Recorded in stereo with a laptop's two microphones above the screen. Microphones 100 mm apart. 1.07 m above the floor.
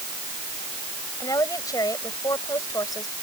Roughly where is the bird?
No bird in this recording.